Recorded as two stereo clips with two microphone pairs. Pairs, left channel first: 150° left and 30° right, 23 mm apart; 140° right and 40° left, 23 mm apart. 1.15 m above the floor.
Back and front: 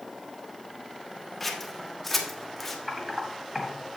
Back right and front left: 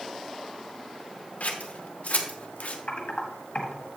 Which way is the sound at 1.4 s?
130° right.